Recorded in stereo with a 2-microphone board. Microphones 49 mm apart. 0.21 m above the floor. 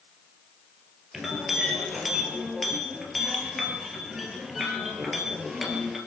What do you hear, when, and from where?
1.1 s a clink: centre (ahead or behind), 2.5 m